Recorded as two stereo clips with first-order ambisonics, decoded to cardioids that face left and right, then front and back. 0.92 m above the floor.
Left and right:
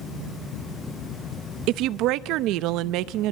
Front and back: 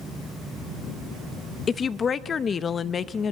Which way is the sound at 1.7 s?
65° right.